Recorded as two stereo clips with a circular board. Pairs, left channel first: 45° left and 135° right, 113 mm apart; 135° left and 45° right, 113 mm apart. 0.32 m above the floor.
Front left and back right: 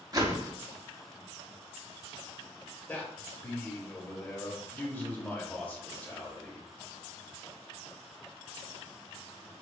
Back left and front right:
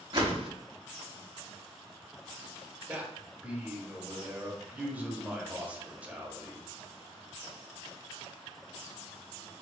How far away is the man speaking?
About 0.9 m.